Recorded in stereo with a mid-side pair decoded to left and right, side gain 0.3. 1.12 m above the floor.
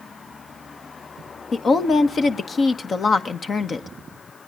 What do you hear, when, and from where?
1.5 s a woman speaking: 65° left, 1.5 m